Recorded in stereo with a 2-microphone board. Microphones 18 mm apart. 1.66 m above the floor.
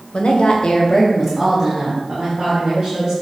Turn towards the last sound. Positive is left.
turn(degrees=-30)  # may be behind; listen again after turning